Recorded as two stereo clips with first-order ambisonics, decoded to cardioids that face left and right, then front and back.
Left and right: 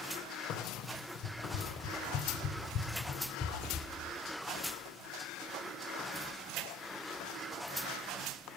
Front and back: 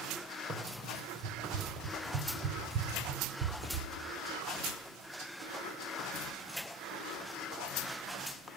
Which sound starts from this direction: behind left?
Running footsteps, at 0.5 s.